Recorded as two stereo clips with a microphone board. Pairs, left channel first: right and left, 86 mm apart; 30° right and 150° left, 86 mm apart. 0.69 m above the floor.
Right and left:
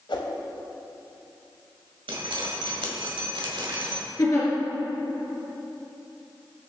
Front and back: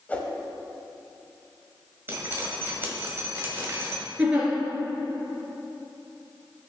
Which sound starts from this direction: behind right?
A giggle, at 4.2 s.